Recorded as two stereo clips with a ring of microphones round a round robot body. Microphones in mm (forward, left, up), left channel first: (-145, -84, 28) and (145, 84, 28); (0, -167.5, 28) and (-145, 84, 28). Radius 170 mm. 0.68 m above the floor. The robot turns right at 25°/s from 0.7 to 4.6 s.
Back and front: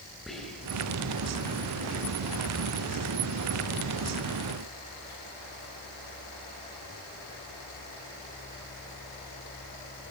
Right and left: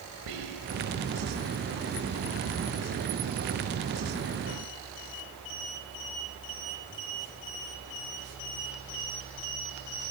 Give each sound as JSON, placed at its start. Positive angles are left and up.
{"t": 0.3, "sound": "whispering", "azimuth_deg": 120, "distance_m": 4.5}